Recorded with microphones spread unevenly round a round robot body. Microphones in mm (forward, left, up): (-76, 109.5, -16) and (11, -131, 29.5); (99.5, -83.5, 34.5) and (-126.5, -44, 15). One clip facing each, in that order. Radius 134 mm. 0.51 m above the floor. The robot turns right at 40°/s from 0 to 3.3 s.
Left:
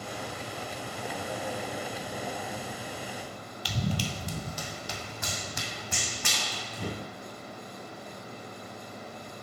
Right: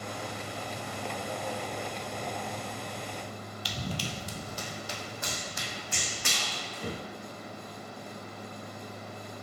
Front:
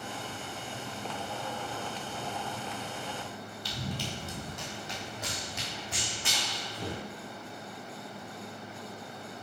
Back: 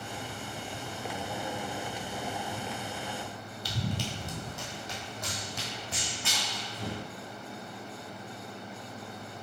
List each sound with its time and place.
3.6 s running footsteps: 110° left, 0.9 m; by 7.0 s 60° left, 2 m